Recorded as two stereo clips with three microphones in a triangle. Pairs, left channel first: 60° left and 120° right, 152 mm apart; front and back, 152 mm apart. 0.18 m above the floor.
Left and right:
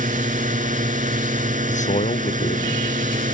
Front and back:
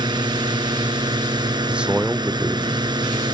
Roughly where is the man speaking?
Left.